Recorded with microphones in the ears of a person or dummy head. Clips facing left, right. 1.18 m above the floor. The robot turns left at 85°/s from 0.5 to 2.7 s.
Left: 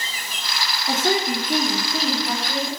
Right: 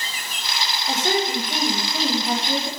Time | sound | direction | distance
0.9 | a woman speaking | 120° left | 3 m